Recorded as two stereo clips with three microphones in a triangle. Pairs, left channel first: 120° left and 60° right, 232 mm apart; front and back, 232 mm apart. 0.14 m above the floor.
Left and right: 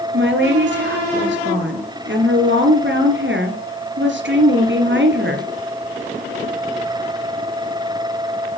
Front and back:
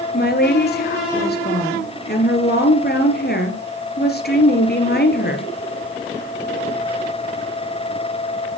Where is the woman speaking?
35° right, 2.5 m.